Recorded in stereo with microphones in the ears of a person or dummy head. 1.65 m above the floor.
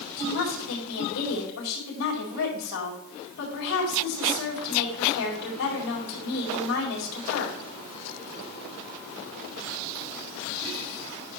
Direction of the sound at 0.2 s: 85° left.